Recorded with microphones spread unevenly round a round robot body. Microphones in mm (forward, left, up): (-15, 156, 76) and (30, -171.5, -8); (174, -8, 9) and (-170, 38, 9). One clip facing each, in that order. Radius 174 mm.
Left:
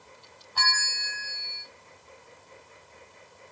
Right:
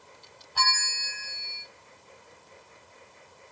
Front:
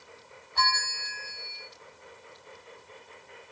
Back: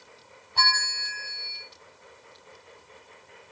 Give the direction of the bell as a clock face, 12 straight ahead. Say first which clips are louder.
Right 2 dB, even; 4 o'clock.